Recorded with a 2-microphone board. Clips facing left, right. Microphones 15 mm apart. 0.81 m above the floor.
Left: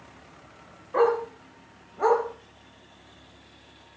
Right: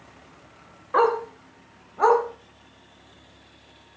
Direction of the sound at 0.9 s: 60° right (ahead or behind).